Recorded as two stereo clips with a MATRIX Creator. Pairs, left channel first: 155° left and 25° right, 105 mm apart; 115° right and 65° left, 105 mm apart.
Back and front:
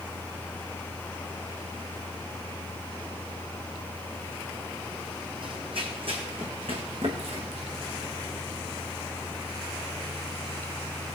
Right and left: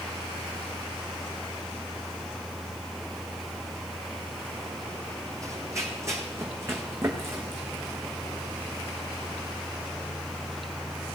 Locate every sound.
5.4 s running footsteps: 10° left, 1.7 m; by 9.4 s straight ahead, 4.5 m